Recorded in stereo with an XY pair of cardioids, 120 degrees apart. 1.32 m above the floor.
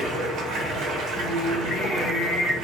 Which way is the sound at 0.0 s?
70° right.